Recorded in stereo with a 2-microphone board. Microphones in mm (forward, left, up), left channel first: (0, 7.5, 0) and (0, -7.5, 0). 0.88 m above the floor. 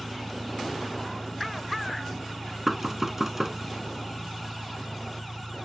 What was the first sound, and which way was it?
An engine running, 65° left (ahead or behind).